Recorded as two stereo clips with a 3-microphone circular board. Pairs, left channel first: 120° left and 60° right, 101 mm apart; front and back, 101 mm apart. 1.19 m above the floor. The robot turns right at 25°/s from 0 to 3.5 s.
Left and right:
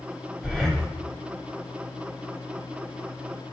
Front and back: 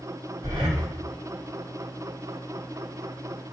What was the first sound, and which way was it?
Breathing, 160° right.